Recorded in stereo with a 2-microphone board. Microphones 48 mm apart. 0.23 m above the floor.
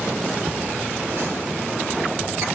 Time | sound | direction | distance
0.5 | laughter | 50° right (ahead or behind) | 2.0 m